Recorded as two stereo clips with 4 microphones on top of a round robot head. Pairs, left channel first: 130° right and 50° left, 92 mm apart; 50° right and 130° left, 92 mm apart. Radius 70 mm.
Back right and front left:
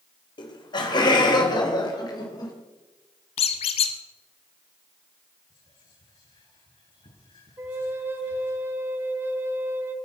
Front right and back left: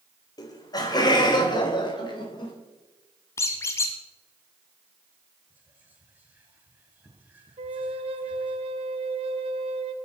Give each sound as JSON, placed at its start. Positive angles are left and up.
{"t": 0.4, "sound": "laughter", "azimuth_deg": -95, "distance_m": 3.0}
{"t": 3.4, "sound": "a squeak", "azimuth_deg": -110, "distance_m": 1.1}
{"t": 5.5, "sound": "whispering", "azimuth_deg": -160, "distance_m": 9.5}
{"t": 7.6, "sound": "a flute", "azimuth_deg": 115, "distance_m": 1.4}